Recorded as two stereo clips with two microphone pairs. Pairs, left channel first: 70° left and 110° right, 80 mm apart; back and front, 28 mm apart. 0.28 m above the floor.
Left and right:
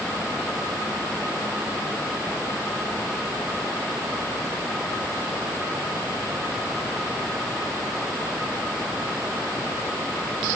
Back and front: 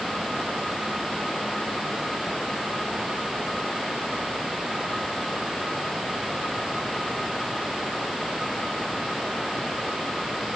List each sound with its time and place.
Only background noise.